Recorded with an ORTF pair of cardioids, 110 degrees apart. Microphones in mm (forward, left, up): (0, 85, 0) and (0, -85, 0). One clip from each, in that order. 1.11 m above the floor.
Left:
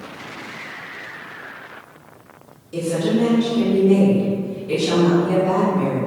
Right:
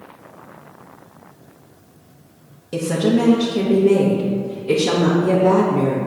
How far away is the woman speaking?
About 1.1 m.